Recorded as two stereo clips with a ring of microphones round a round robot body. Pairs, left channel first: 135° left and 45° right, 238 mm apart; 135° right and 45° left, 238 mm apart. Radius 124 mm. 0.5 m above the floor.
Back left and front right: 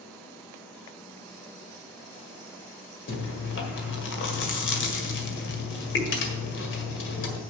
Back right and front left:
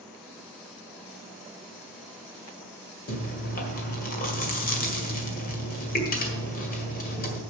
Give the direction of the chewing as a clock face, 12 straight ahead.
6 o'clock.